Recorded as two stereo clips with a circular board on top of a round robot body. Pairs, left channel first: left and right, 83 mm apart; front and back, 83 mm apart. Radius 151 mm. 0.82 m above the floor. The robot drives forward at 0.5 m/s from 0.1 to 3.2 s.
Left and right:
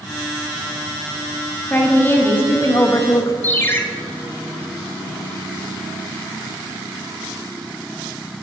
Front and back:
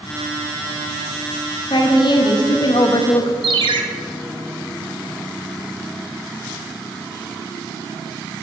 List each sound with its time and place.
1.7 s a woman speaking: 20° left, 1.5 m; by 3.3 s 40° left, 0.8 m
3.4 s a ringtone: 155° left, 0.7 m